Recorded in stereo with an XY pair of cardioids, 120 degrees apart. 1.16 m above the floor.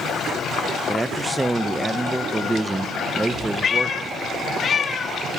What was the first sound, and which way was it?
A man speaking, 15° right.